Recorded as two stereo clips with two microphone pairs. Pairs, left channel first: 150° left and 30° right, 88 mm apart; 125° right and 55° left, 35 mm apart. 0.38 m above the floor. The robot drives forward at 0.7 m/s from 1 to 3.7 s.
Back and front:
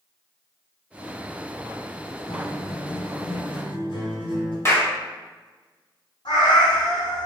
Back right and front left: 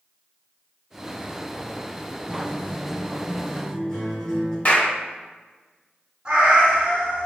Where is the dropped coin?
I don't hear a dropped coin.